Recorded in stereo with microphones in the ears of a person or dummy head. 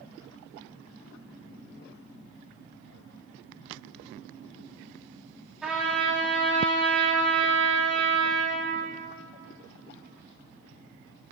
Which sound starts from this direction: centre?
A trumpet, at 5.6 s.